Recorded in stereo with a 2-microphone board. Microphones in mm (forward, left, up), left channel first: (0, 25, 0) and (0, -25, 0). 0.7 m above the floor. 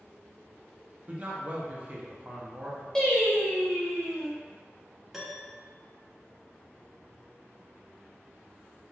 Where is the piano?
10° right (ahead or behind), 0.6 m.